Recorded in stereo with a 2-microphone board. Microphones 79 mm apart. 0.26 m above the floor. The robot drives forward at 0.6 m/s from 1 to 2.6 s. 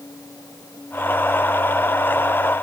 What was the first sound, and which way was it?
Only background noise.